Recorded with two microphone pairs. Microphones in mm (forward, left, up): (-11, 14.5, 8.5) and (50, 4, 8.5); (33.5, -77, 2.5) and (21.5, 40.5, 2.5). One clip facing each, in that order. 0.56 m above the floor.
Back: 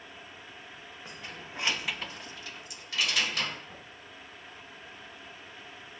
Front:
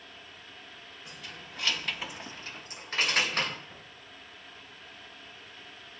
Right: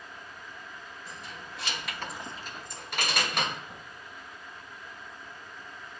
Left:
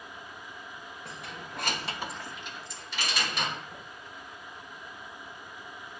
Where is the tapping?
125° right, 2.5 m.